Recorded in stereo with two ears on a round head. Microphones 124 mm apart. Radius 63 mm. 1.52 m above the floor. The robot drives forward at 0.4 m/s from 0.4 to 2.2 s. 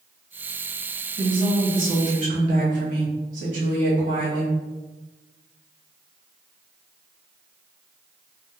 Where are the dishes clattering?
No dishes clattering in this recording.